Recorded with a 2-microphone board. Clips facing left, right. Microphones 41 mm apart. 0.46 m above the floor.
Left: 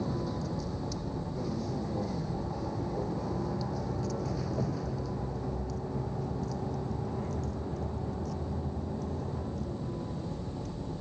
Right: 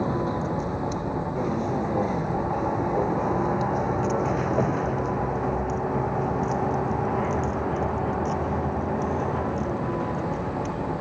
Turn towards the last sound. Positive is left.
turn(degrees=-70)  # may be behind; listen again after turning